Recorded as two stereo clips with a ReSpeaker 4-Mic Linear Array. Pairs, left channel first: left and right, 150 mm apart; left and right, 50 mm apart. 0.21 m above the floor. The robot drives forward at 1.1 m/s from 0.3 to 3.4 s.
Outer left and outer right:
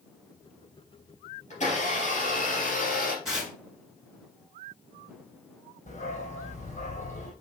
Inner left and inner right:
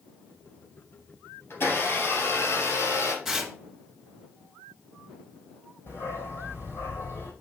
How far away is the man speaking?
No man speaking in this recording.